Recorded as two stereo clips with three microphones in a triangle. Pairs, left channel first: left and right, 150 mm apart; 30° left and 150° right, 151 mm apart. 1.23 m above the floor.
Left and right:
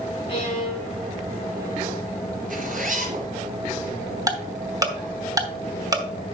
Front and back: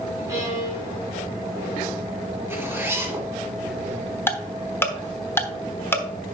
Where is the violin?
140° left, 4.5 m.